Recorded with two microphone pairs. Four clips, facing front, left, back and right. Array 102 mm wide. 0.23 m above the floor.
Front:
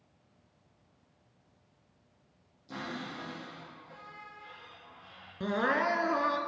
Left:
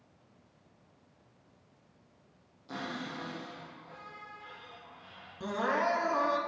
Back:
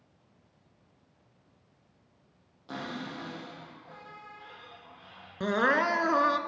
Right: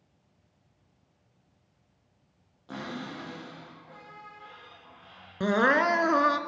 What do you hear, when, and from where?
2.7 s a cupboard door: 165° right, 5.5 m
5.4 s crying: 120° right, 0.7 m